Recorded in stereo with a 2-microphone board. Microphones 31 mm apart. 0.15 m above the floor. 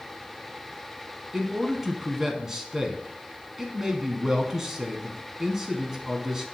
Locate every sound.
1.3 s a man speaking: 15° right (ahead or behind), 1.0 m